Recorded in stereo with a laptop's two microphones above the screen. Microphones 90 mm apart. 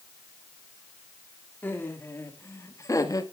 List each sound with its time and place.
1.6 s laughter: 20° left (ahead or behind), 2 m; by 3.2 s 45° left (ahead or behind), 1.3 m